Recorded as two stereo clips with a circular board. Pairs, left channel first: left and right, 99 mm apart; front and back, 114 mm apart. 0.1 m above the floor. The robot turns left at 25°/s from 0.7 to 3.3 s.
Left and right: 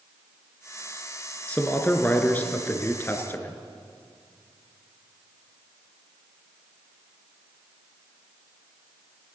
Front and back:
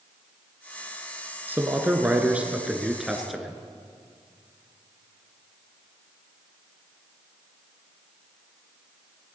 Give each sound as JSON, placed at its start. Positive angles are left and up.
{"t": 1.5, "sound": "a man speaking", "azimuth_deg": 140, "distance_m": 1.2}